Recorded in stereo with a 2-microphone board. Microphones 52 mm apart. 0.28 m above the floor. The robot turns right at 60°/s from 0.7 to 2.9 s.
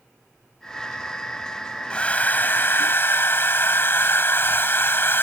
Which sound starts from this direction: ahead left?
A hair dryer, at 1.9 s.